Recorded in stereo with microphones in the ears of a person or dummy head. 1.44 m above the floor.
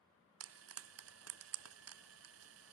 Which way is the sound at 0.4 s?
80° right.